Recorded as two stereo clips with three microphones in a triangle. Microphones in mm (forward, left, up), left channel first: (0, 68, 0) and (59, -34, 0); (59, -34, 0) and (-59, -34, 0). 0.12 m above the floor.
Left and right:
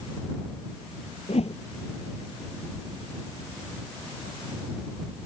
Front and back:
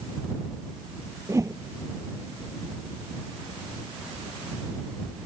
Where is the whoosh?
120° left.